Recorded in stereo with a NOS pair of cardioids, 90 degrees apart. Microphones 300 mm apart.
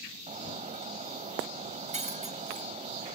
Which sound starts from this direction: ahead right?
Breaking glass, at 0.3 s.